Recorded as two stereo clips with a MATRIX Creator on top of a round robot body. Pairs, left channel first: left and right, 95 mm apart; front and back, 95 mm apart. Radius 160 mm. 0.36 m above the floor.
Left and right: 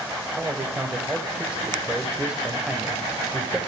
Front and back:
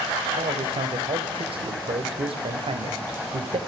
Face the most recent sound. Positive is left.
turn(degrees=-165)